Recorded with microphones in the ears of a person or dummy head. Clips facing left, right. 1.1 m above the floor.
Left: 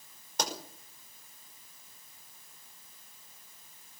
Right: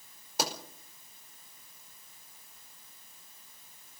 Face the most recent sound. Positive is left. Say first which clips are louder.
# right 1 dB
turn(degrees=-10)  # may be behind; listen again after turning